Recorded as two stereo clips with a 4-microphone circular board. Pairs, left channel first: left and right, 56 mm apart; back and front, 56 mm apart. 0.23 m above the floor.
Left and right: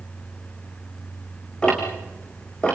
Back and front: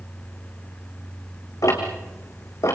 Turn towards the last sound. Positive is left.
turn(degrees=165)